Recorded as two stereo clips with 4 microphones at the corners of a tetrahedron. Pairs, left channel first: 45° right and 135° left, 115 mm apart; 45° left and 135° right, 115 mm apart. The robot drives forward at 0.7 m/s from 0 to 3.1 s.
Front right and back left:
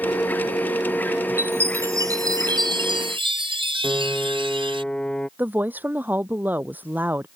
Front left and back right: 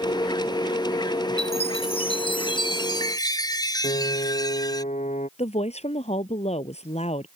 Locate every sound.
1.4 s a chime: 65° left; by 4.8 s 100° left
3.8 s a piano: 40° left
5.4 s a woman speaking: 60° left